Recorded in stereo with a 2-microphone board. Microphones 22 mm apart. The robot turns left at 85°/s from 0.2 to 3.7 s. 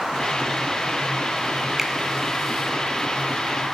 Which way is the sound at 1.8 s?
15° right (ahead or behind).